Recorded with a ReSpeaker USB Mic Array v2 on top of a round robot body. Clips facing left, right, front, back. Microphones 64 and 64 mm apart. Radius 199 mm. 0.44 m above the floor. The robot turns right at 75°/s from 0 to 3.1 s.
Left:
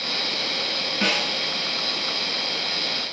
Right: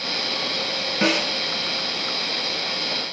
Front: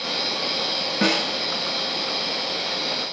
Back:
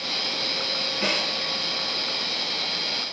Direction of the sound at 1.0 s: 20° right.